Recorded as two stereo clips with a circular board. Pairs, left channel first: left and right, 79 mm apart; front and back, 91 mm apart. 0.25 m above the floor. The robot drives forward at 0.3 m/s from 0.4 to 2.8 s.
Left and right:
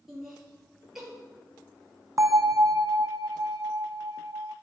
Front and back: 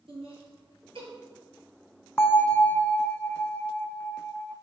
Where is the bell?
65° right, 0.8 m; by 4.5 s 80° right, 0.8 m.